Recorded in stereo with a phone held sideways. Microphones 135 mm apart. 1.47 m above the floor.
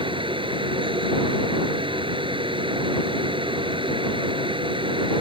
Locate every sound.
0.0 s a fan: 40° right (ahead or behind)